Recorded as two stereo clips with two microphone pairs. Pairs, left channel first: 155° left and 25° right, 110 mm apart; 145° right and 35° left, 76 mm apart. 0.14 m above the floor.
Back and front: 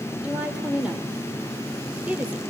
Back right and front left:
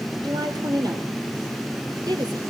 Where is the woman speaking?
50° left, 4.5 m.